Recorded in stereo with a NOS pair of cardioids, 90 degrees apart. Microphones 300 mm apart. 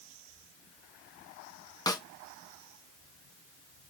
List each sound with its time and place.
1.9 s a snare drum: 15° left, 0.8 m